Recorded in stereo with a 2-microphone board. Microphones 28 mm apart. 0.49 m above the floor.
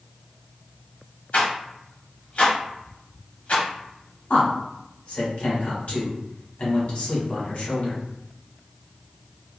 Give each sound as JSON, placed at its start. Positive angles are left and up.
{"t": 1.3, "sound": "a rattle", "side_deg": 55, "distance_m": 0.8}
{"t": 4.3, "sound": "a man speaking", "side_deg": 55, "distance_m": 1.2}